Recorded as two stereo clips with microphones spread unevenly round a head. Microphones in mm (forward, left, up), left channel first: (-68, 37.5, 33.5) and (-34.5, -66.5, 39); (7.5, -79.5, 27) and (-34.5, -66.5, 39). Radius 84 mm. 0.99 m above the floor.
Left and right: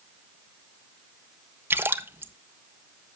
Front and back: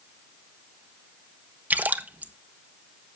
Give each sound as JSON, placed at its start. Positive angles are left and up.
{"t": 1.7, "sound": "a splash", "azimuth_deg": -140, "distance_m": 1.3}